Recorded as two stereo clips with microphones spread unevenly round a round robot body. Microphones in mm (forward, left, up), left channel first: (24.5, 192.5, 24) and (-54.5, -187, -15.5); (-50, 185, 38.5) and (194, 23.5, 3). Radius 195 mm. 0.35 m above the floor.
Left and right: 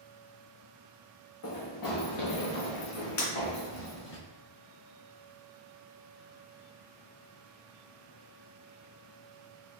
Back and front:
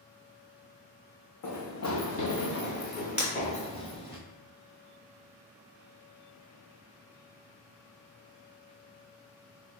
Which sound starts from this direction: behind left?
Running footsteps, at 1.4 s.